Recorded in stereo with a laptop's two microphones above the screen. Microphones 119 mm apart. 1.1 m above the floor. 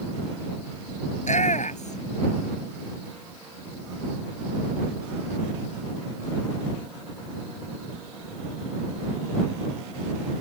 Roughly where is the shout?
Left.